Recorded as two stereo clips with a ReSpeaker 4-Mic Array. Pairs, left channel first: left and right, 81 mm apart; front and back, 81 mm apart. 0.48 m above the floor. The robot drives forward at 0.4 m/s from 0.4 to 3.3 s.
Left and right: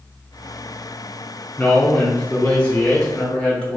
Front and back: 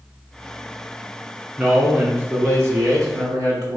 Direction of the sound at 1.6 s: 125° left.